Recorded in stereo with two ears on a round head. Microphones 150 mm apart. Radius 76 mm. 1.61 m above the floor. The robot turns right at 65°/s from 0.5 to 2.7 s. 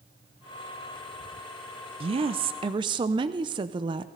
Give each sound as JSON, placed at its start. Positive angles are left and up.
{"t": 2.0, "sound": "a woman speaking", "azimuth_deg": -105, "distance_m": 0.5}